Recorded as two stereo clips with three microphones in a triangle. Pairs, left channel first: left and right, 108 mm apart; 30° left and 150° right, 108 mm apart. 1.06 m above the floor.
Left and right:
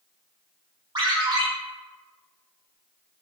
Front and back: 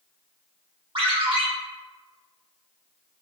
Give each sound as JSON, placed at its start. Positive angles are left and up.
{"t": 0.9, "sound": "a ringtone", "azimuth_deg": -125, "distance_m": 0.8}